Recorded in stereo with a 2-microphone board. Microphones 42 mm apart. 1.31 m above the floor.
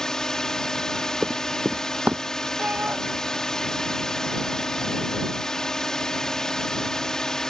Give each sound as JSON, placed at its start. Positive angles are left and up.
{"t": 0.0, "sound": "a drone", "side_deg": 15}
{"t": 1.2, "sound": "running footsteps", "side_deg": -40}
{"t": 2.6, "sound": "a shout", "side_deg": -35}